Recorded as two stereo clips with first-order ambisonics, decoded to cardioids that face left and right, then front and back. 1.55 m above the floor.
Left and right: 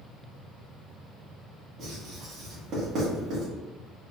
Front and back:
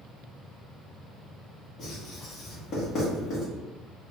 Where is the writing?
50° right, 1.4 m.